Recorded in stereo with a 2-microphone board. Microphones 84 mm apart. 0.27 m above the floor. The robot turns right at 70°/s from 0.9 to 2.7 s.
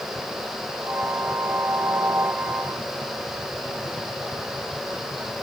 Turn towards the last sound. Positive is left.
No sound to turn to.